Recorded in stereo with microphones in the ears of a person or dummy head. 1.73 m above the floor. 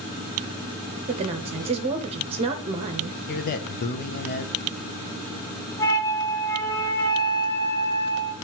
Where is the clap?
No clap in this recording.